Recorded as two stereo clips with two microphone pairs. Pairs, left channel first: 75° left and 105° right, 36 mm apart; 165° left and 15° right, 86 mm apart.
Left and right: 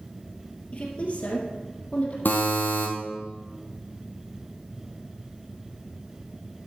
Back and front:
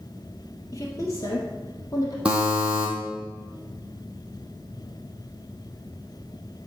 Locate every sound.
0.7 s a woman speaking: 120° left, 2.5 m
2.2 s a buzzer: 65° left, 2 m